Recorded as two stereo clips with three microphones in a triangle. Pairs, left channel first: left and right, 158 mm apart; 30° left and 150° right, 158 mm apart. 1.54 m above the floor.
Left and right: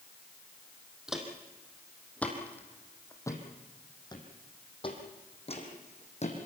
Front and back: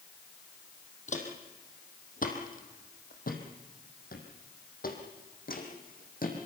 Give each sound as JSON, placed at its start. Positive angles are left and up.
{"t": 1.1, "sound": "footsteps", "azimuth_deg": -5, "distance_m": 4.0}